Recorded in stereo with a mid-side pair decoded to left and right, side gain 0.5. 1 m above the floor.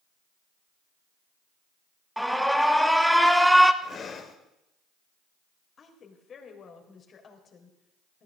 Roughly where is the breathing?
Ahead left.